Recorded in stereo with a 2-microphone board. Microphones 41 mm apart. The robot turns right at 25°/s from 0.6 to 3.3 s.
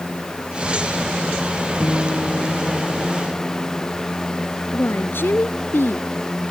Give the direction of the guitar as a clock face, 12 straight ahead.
11 o'clock.